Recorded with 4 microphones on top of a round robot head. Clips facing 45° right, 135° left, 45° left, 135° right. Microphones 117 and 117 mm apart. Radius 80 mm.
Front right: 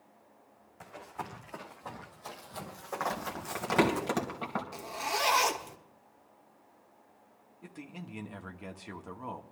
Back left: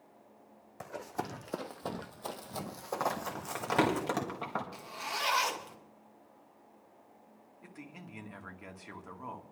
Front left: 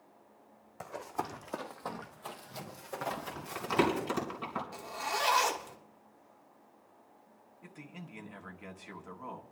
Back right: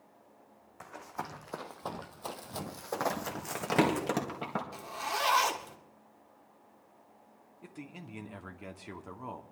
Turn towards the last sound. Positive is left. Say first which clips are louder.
# front right 4 dB, back right 3 dB
turn(degrees=-100)